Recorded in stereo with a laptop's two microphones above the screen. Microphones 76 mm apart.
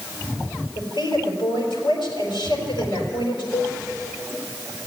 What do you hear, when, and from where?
0.8 s a woman speaking: 80° left, 4 m
3.5 s a cowbell: 25° left (ahead or behind), 1.0 m